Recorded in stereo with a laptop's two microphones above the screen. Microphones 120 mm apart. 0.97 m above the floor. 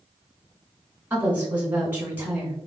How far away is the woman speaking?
About 1.6 m.